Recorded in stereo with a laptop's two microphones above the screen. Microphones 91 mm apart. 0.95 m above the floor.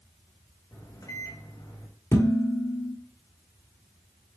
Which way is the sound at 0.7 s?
40° left (ahead or behind).